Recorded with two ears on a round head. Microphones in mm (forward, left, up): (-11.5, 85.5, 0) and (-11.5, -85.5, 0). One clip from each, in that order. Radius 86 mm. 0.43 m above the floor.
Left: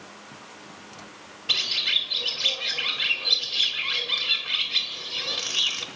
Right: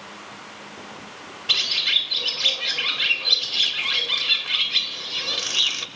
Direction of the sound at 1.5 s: Centre (ahead or behind).